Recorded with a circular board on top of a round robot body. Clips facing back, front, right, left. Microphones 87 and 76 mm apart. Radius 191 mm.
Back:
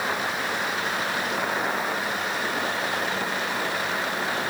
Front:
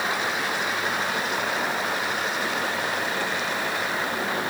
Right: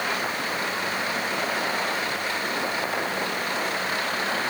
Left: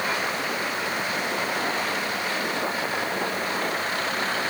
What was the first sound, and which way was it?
Only background noise.